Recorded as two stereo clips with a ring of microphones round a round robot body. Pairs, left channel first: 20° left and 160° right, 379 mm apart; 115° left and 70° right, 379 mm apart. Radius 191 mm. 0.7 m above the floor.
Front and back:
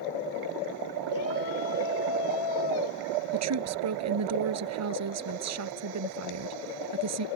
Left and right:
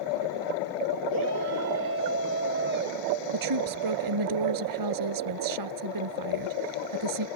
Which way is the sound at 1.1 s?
20° right.